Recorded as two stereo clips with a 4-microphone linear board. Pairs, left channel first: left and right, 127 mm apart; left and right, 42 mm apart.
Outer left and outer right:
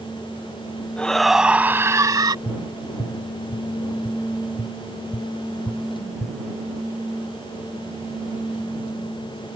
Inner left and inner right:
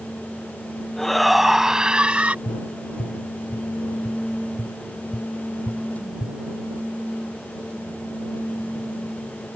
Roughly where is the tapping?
Left.